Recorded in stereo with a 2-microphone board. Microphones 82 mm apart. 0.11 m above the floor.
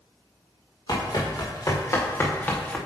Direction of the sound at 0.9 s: 50° left (ahead or behind).